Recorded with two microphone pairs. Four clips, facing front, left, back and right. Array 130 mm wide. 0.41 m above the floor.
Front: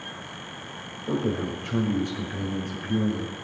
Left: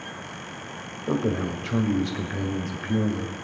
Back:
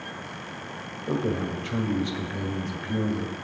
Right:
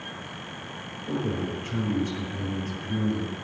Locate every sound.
1.1 s a man speaking: 105° left, 1.6 m